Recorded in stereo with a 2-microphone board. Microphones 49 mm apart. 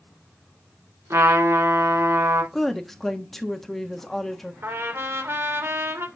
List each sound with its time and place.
1.1 s a trumpet: 85° right, 3 m
2.5 s a woman speaking: 5° left (ahead or behind), 1.2 m
4.6 s a trumpet: 60° right (ahead or behind), 1.8 m